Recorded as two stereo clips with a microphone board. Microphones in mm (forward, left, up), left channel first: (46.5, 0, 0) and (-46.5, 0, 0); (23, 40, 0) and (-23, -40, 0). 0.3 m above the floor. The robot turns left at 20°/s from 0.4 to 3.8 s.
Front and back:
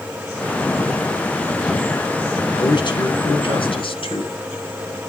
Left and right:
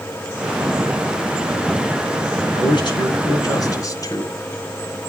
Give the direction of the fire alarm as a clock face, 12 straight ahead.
I don't hear a fire alarm.